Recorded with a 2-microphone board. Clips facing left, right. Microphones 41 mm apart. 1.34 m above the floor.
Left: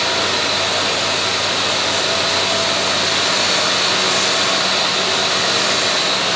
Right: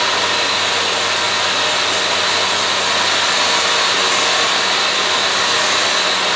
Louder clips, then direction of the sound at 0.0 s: Right 2 dB; 45° right (ahead or behind).